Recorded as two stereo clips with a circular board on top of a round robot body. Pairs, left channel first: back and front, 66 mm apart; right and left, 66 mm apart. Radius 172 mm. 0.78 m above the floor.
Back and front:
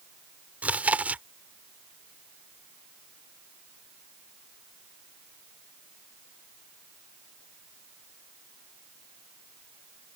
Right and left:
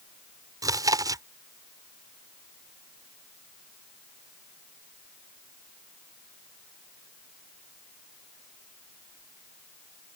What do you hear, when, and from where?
0.6 s chewing: 70° left